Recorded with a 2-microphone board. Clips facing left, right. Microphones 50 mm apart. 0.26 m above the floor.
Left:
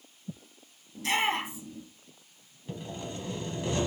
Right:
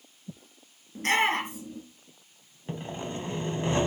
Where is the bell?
I don't hear a bell.